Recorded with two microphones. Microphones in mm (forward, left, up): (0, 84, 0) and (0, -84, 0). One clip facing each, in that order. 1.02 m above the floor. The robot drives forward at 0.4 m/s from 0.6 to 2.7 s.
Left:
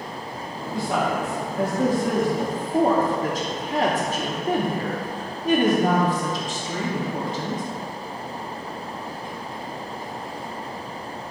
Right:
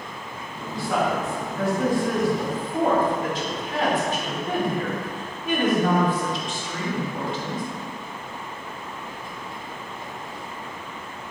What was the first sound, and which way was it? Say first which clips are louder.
A woman speaking: even; 30° left (ahead or behind).